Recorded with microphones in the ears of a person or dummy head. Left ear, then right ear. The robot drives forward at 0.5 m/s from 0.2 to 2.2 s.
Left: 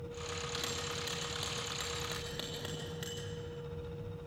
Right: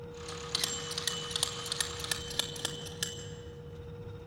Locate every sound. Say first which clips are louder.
0.3 s a bell: right 4 dB; 35° right (ahead or behind), 3.5 m; by 3.2 s 50° right (ahead or behind), 3 m